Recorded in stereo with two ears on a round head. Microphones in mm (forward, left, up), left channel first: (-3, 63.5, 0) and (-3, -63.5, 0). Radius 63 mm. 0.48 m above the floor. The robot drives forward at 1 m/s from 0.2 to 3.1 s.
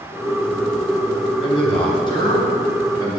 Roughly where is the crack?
No crack in this recording.